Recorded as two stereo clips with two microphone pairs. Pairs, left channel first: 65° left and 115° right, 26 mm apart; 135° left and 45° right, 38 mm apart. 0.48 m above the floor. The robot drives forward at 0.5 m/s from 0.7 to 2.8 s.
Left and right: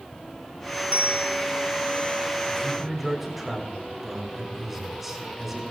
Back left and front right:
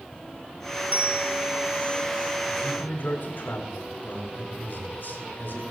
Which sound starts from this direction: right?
A bell, at 0.9 s.